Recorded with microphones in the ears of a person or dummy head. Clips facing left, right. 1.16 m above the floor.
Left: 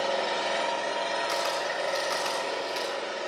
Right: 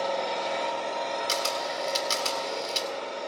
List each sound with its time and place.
0.0 s an engine running: 15° left (ahead or behind), 9 m
1.3 s a camera shutter: 45° right (ahead or behind), 2.5 m